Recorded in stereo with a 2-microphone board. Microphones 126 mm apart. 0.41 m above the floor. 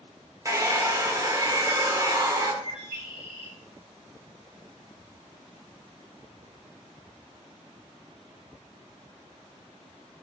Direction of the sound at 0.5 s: 25° right (ahead or behind).